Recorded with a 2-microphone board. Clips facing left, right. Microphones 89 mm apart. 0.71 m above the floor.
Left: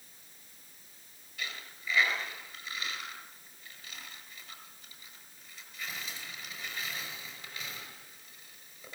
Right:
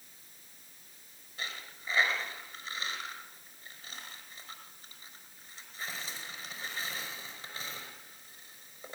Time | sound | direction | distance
1.4 | a dropped coin | 30° right (ahead or behind) | 6 m